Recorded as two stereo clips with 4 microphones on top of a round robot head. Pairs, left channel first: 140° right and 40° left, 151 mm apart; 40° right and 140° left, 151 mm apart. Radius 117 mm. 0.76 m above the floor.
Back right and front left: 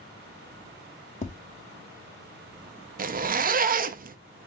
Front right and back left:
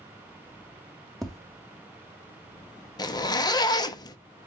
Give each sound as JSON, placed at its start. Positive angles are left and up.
{"t": 1.2, "sound": "tapping", "azimuth_deg": -130, "distance_m": 1.0}
{"t": 3.0, "sound": "a zipper", "azimuth_deg": 20, "distance_m": 0.6}